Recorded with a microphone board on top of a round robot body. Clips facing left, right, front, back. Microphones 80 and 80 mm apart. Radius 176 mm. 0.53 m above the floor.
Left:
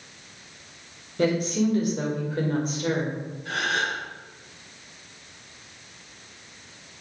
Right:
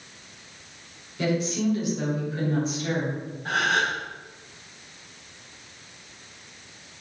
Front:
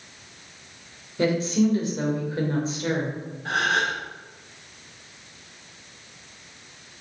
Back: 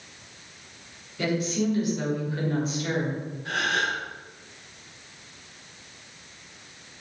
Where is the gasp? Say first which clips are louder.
Right 3 dB, front 3 dB; 45° right, 3 m.